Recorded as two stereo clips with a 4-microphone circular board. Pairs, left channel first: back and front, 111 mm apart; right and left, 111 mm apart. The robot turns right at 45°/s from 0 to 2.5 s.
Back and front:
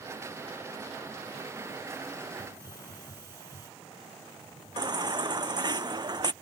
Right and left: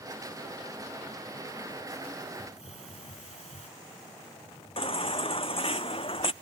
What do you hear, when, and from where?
2.4 s a hiss: 70° right; by 3.7 s 65° right
4.8 s a baby crying: 55° right